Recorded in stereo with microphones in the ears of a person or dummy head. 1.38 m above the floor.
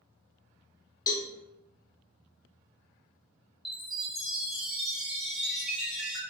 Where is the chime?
5° right (ahead or behind), 1.0 m.